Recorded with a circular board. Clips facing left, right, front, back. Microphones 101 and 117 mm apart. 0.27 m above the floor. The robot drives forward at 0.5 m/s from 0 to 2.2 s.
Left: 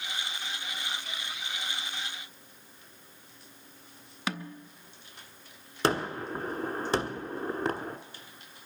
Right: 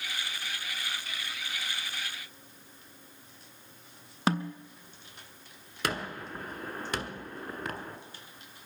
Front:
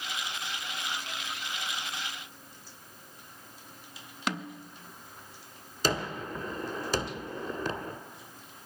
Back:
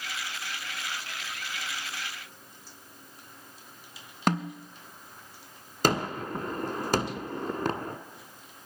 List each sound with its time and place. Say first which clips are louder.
4.3 s a snare drum: right 7 dB, back 7 dB; 140° right, 0.6 m
5.8 s a gunshot: left 6 dB, back 4 dB; 145° left, 1.0 m